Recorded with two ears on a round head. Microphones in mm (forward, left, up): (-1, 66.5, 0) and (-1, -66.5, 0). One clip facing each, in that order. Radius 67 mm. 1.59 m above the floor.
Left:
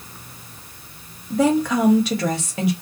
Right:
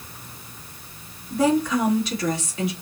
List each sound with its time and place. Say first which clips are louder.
1.3 s a woman speaking: left 2 dB; 55° left (ahead or behind), 1.2 m